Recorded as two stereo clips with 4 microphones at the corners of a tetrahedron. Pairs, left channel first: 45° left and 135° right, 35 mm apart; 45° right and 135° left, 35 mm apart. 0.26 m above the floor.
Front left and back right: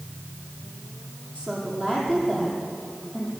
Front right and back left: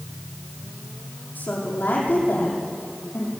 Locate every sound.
1.4 s a woman speaking: 25° right, 8 m